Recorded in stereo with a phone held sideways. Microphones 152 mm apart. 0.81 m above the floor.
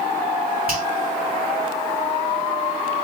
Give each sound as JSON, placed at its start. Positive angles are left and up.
{"t": 0.7, "sound": "a finger snap", "side_deg": -70, "distance_m": 2.5}